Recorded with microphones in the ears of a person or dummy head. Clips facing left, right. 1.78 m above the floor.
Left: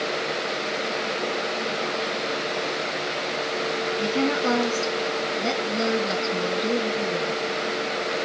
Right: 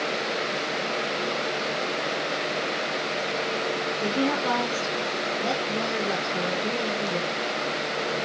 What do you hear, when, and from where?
4.0 s a woman speaking: 35° left (ahead or behind), 3 m